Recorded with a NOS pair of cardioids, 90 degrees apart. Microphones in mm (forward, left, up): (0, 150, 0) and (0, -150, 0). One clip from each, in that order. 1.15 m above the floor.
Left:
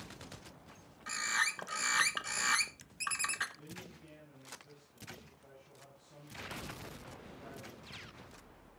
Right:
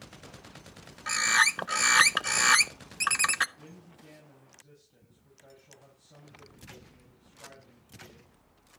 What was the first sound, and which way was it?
A bird, 45° right.